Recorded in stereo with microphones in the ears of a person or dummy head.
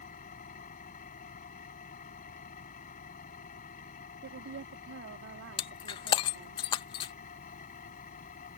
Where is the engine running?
45° left (ahead or behind).